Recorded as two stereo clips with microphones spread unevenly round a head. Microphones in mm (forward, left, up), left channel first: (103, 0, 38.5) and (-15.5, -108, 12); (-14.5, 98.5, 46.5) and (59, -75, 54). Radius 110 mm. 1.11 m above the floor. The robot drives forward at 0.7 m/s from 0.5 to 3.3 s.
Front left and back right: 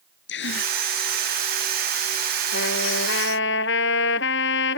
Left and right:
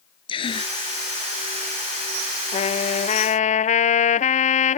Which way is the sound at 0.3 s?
50° left.